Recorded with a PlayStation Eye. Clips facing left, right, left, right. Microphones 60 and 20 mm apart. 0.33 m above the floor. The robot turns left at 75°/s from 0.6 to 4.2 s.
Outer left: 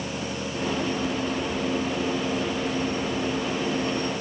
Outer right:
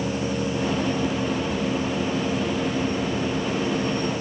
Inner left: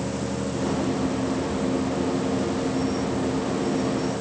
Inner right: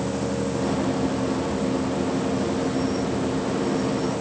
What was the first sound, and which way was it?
Only background noise.